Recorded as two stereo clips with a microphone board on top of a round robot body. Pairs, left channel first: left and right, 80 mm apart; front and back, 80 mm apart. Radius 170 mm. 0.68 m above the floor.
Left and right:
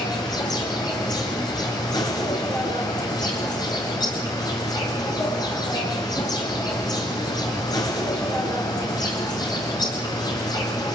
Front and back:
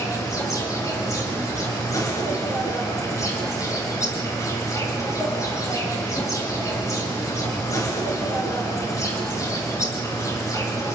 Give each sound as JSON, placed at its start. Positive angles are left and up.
{"t": 0.0, "sound": "an insect", "azimuth_deg": 50, "distance_m": 4.5}